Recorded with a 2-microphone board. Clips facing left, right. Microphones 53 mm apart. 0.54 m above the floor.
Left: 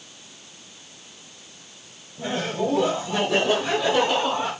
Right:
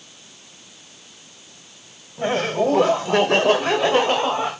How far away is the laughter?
About 2 m.